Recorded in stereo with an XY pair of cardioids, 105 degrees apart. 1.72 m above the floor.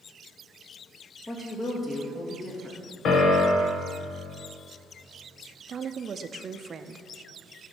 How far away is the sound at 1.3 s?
About 2.5 m.